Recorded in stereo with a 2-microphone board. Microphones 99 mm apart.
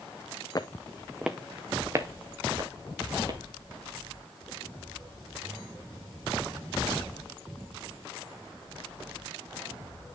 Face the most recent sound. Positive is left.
turn(degrees=-45)  # may be behind; listen again after turning